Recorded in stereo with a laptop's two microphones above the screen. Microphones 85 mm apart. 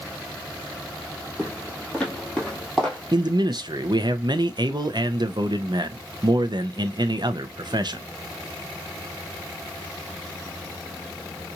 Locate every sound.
1.4 s footsteps: 15° left (ahead or behind), 1.1 m; by 3.0 s 10° left (ahead or behind), 1.6 m
3.1 s a man speaking: 55° right (ahead or behind), 0.5 m